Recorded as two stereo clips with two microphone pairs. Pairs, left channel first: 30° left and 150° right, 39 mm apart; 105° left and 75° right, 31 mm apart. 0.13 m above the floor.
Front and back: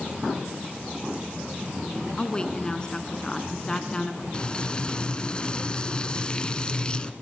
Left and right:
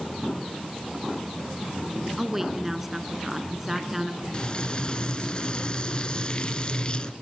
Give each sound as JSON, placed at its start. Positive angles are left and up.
{"t": 2.2, "sound": "a woman speaking", "azimuth_deg": -5, "distance_m": 1.7}
{"t": 4.3, "sound": "frying", "azimuth_deg": 75, "distance_m": 1.1}